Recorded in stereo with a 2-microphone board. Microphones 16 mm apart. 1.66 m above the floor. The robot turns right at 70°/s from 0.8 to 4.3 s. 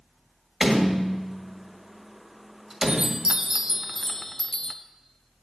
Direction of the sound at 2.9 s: 75° right.